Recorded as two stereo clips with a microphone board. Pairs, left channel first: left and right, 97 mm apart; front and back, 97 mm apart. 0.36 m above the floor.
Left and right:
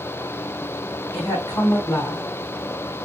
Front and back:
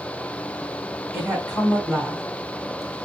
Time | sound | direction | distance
1.1 | a woman speaking | 90° left | 2 m